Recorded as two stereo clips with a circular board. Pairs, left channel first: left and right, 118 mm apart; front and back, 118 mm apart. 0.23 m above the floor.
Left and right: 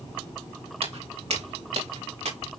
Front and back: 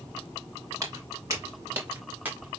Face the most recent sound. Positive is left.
turn(degrees=-105)